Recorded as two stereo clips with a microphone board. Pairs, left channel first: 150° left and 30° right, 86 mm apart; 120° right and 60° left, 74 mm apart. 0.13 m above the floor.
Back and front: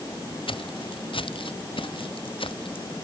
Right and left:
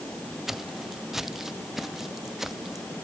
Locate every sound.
0.5 s footsteps: 145° left